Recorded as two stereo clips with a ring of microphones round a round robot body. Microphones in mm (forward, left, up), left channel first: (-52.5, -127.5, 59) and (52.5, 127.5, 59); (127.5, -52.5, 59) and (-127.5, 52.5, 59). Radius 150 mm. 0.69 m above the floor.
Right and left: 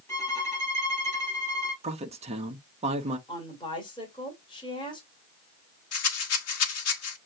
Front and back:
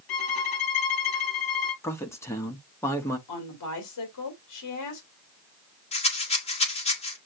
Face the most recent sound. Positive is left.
turn(degrees=-90)